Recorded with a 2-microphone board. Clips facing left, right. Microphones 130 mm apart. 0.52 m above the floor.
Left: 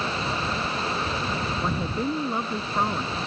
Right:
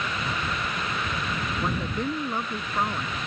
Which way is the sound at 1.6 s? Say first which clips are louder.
Even; 5° left (ahead or behind).